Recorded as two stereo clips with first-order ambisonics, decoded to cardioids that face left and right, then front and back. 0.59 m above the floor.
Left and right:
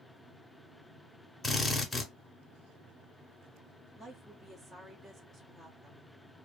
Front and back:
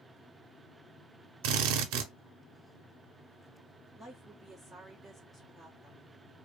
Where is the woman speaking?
70° right, 0.7 m.